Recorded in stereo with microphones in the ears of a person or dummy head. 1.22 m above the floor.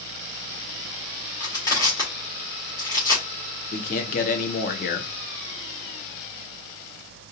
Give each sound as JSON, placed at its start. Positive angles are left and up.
{"t": 1.4, "sound": "crushing", "side_deg": 20, "distance_m": 1.8}
{"t": 3.7, "sound": "a man speaking", "side_deg": 40, "distance_m": 0.7}